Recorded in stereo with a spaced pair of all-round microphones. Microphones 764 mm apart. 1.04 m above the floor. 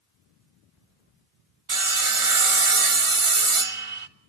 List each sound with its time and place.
1.7 s sawing: 45° right (ahead or behind), 0.9 m